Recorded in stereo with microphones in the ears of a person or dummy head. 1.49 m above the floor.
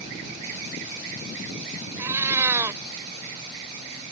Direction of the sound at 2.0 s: 15° right (ahead or behind).